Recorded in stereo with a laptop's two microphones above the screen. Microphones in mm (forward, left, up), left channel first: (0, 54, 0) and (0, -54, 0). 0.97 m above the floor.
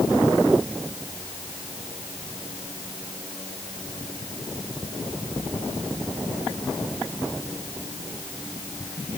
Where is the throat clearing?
I don't hear throat clearing.